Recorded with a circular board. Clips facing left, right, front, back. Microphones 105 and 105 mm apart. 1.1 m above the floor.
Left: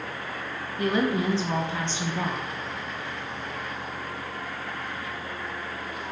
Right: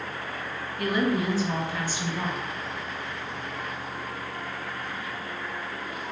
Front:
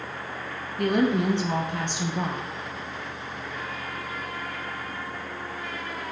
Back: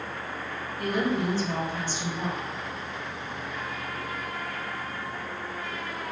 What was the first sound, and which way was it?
A woman speaking, 25° left.